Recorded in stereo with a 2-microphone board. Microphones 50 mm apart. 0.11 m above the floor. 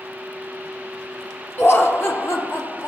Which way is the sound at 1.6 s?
50° left (ahead or behind).